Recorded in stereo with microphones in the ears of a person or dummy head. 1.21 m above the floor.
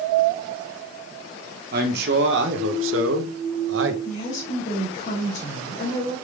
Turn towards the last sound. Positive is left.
turn(degrees=40)  # may be behind; listen again after turning